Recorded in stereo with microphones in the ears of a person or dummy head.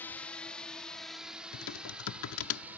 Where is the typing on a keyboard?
75° left (ahead or behind).